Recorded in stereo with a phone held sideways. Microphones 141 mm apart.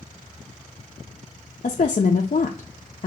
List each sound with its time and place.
1.6 s a woman speaking: 55° left (ahead or behind), 0.6 m